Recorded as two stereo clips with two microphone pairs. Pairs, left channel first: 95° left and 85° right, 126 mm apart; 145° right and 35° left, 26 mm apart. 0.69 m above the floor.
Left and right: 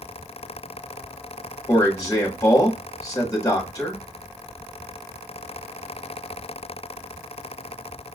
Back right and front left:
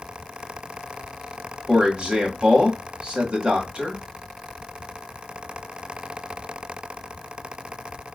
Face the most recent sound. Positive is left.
turn(degrees=55)